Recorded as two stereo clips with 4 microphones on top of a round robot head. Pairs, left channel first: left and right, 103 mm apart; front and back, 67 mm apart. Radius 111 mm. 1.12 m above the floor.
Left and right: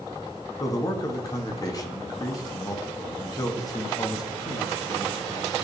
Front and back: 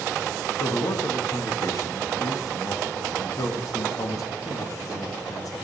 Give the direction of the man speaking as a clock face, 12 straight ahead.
11 o'clock.